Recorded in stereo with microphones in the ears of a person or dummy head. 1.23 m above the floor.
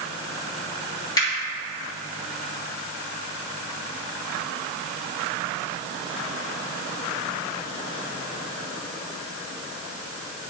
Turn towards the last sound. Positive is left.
turn(degrees=20)  # may be behind; listen again after turning